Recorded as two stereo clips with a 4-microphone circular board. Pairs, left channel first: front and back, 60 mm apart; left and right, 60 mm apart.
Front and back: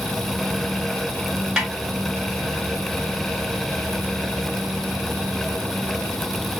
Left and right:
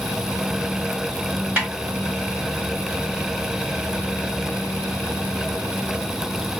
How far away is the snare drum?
About 1.6 m.